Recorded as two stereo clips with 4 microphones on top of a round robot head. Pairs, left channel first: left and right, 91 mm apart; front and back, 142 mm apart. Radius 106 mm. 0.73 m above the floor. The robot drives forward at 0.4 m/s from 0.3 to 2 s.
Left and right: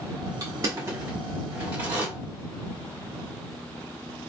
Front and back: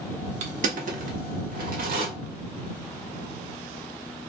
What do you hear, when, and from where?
0.4 s crushing: 145° right, 0.6 m; by 2.1 s 165° right, 1.2 m